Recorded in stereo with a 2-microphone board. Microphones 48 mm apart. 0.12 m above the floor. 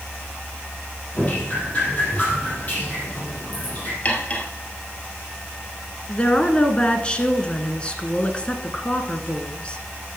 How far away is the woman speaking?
About 1.2 m.